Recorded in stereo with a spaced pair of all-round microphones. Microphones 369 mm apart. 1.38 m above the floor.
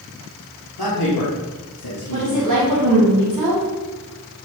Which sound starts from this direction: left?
A man speaking, at 0.8 s.